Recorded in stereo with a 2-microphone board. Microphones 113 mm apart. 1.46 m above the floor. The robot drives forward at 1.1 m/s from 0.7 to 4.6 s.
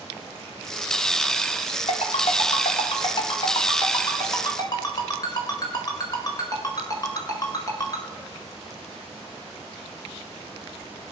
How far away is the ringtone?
About 2.5 m.